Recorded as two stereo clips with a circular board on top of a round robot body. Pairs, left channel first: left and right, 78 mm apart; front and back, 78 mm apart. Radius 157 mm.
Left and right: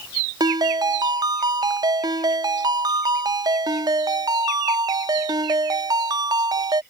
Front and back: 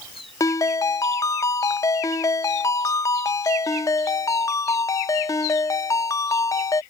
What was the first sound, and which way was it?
A ringtone, 50° right.